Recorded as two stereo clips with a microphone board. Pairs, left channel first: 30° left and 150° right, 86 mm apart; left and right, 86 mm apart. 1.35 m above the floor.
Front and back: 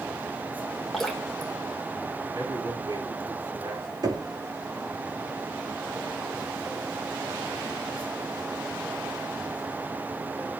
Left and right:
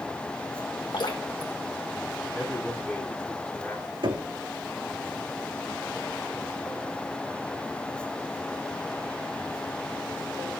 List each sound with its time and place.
0.9 s dripping: 120° left, 2.5 m
2.3 s a man speaking: 170° left, 9 m
4.0 s knocking: 110° right, 2.5 m